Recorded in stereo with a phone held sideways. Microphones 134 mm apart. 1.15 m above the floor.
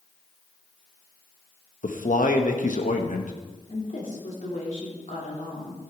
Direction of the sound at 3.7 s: 70° left (ahead or behind).